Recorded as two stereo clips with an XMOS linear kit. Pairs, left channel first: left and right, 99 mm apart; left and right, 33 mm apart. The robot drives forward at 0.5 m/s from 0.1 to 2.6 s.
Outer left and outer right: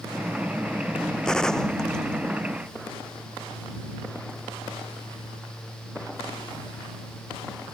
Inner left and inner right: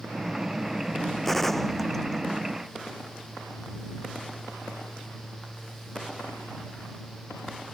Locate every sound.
1.2 s a gunshot: 5° left (ahead or behind)